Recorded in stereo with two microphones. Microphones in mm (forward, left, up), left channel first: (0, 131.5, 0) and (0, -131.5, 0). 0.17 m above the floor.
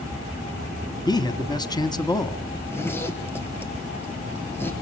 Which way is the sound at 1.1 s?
15° left (ahead or behind).